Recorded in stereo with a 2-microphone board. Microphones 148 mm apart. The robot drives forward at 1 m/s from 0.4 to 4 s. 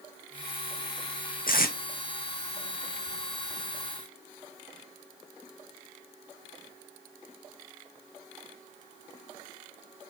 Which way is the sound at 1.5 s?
70° left (ahead or behind).